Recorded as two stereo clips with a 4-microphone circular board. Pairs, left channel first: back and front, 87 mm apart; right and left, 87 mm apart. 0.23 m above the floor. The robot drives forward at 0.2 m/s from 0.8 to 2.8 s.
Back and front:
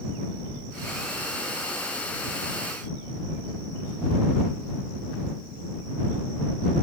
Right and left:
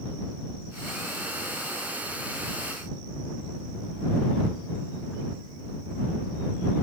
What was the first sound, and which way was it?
Only background noise.